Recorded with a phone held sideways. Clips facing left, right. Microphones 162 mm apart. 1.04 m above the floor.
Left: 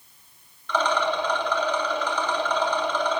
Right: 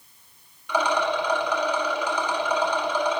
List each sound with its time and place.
0.7 s a rattle: 10° right (ahead or behind), 3 m